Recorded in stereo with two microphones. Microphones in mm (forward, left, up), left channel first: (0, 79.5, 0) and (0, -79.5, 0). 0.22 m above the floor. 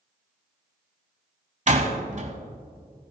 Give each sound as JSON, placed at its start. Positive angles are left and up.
{"t": 1.7, "sound": "a door slam", "side_deg": -50, "distance_m": 1.2}